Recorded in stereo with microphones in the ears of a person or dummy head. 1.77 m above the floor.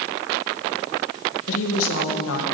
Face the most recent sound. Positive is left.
turn(degrees=80)